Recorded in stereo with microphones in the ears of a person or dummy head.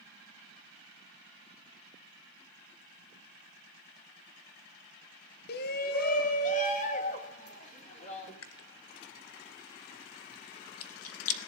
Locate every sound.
5.5 s a shout: 60° left (ahead or behind), 0.8 m; by 8.3 s 40° left (ahead or behind), 4 m
8.4 s chewing: 75° left (ahead or behind), 1.1 m